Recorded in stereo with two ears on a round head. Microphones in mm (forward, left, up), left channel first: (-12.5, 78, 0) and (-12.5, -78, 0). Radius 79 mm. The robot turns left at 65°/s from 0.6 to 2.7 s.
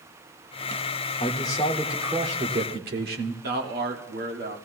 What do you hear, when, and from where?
1.2 s a man speaking: 40° left, 1.7 m; by 3.3 s 60° right, 1.7 m
3.4 s a man speaking: 55° right (ahead or behind), 1.6 m